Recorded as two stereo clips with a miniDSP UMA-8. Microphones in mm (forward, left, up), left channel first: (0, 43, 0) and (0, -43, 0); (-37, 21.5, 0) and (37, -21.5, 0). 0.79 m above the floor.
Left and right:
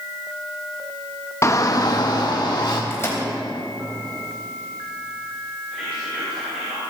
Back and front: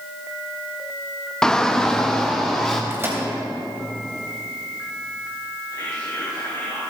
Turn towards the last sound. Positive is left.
turn(degrees=-160)